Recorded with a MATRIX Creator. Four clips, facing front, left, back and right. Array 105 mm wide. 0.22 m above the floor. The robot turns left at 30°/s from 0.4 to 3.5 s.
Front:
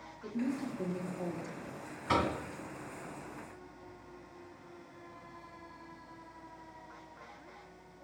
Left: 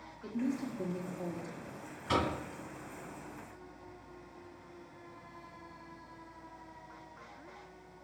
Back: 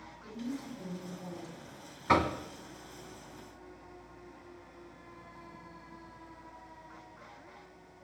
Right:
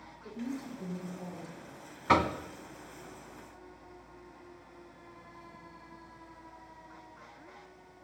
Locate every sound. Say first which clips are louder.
0.2 s a woman speaking: left 4 dB, front 5 dB; 55° left, 4.5 m; by 1.8 s 15° left, 4.5 m
2.1 s knocking: right 6 dB, back 4 dB; 115° right, 1.5 m; by 2.4 s 125° right, 1.5 m